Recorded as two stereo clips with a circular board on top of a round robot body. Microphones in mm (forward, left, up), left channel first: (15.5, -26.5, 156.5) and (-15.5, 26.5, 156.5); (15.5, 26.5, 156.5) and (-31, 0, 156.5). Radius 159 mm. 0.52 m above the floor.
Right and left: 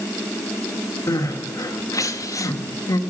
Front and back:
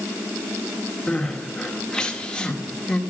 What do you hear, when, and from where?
1.1 s crying: 45° right, 2 m